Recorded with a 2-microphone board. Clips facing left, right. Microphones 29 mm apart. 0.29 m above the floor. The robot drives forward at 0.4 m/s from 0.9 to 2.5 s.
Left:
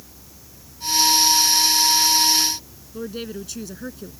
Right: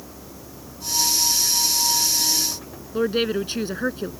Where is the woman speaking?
45° right (ahead or behind).